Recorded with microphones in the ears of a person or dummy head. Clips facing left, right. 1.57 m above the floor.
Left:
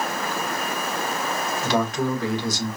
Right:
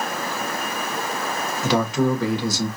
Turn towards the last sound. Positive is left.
turn(degrees=-70)  # may be behind; listen again after turning